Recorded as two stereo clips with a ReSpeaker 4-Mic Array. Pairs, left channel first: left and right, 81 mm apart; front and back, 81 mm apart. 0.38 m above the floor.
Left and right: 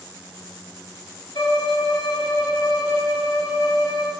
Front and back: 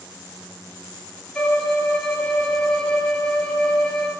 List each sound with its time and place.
1.4 s a violin: 80° left, 0.9 m